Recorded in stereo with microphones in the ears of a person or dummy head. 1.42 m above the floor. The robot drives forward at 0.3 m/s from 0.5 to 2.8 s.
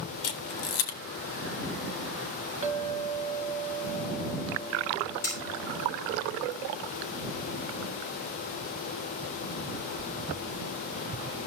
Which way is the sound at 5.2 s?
10° left (ahead or behind).